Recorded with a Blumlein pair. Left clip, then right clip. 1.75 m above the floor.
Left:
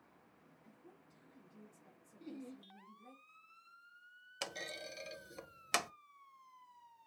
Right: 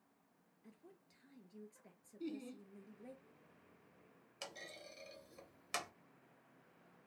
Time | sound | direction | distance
0.6 | a woman speaking | 65° right | 2 m
2.2 | laughter | 65° right | 1.7 m
4.4 | a clunk | 25° left | 0.5 m